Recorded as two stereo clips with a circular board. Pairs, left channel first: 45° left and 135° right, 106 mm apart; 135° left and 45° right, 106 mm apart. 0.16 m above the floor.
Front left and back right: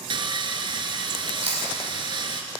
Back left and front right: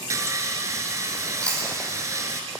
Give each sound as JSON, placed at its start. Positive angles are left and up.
{"t": 0.1, "sound": "sawing", "azimuth_deg": -100, "distance_m": 0.8}
{"t": 1.4, "sound": "chewing", "azimuth_deg": -145, "distance_m": 3.0}